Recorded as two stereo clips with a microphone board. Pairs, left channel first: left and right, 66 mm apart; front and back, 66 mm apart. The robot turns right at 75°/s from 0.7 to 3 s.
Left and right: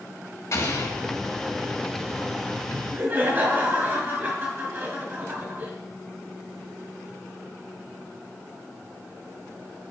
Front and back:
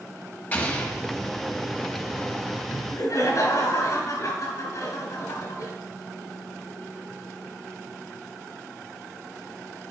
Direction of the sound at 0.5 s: 60° left.